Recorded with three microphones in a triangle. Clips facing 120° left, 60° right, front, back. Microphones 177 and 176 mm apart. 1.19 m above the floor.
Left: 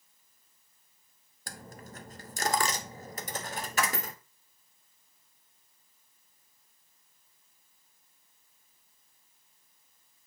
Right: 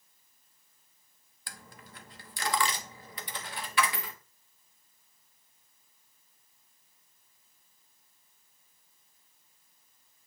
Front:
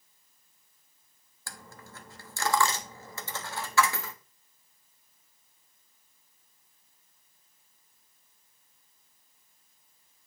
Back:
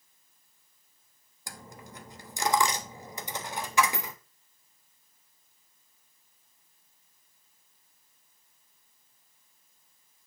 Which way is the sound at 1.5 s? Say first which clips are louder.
Left 6 dB, back 2 dB; 115° left.